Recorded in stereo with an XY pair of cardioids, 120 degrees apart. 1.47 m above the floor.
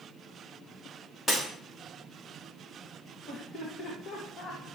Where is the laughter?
50° left, 2.0 m.